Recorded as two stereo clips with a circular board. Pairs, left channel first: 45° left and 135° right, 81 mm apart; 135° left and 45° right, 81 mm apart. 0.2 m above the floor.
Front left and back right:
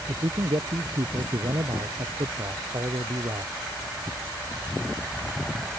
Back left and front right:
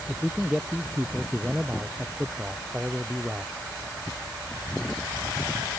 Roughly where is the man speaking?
Behind right.